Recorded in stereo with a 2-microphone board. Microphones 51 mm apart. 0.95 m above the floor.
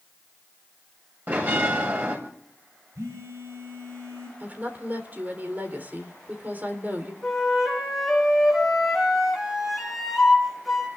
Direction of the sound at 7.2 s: 5° right (ahead or behind).